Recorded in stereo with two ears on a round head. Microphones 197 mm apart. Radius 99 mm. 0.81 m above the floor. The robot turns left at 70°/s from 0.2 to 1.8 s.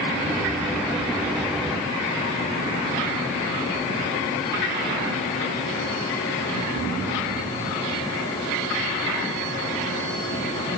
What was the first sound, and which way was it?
Only background noise.